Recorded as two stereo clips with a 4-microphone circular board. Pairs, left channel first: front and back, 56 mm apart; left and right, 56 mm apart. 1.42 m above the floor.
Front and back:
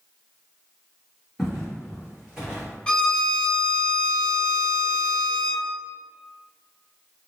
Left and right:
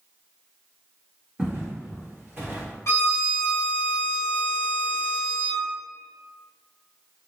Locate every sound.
1.4 s footsteps: 85° right, 1.5 m; by 2.7 s 110° right, 1.9 m
2.9 s a violin: 70° left, 0.7 m